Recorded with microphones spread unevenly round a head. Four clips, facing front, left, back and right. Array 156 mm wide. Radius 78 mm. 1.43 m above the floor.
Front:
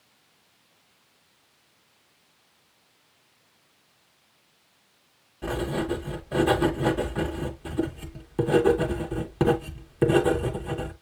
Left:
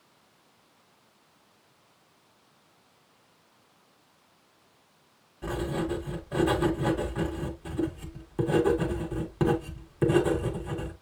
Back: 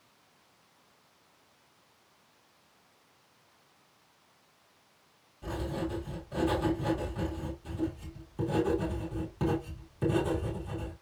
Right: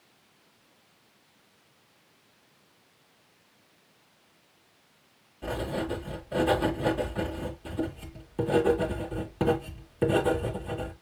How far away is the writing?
About 1.9 m.